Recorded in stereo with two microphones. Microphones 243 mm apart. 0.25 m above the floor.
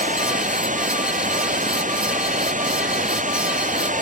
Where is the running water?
35° right (ahead or behind).